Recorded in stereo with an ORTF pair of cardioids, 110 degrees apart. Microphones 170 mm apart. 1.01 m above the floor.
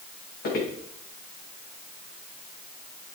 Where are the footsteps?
70° left, 4.5 m.